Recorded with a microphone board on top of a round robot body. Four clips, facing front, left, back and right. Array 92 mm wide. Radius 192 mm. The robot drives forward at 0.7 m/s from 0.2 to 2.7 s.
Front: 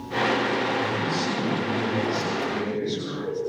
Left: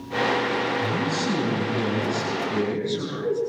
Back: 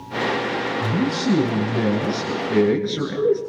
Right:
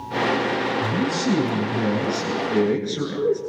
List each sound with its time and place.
0.8 s a man speaking: 165° right, 8 m